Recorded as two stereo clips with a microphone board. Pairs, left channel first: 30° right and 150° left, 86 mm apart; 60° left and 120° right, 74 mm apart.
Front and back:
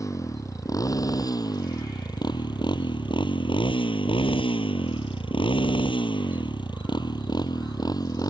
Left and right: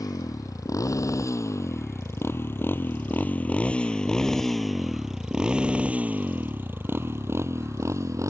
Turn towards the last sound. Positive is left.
turn(degrees=-75)